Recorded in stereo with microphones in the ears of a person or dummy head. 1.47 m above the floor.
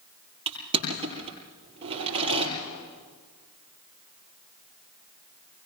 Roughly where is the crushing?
Right.